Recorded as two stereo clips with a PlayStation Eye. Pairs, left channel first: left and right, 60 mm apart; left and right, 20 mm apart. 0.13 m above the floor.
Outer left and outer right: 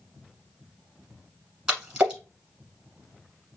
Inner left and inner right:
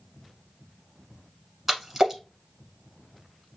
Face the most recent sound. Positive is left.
turn(degrees=-10)  # may be behind; listen again after turning